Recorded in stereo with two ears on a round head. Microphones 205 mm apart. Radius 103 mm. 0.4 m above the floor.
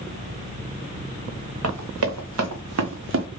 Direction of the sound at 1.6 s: 75° right (ahead or behind).